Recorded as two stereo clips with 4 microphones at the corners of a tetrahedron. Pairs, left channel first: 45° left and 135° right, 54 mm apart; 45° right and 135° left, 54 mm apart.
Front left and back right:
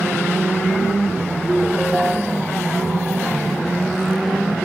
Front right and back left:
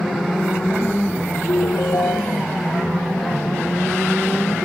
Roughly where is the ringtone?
Ahead right.